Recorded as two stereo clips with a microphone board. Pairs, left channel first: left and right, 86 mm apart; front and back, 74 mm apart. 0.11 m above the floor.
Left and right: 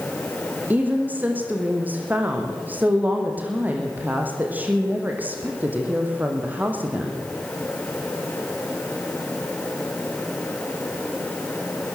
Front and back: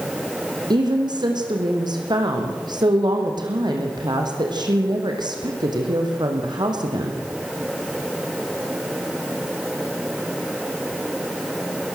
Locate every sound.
0.7 s a woman speaking: 160° right, 5.5 m